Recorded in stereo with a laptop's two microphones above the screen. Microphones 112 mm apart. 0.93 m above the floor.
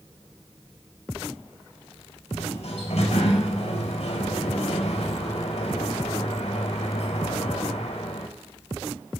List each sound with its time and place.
2.3 s a sliding door: 65° left (ahead or behind), 5 m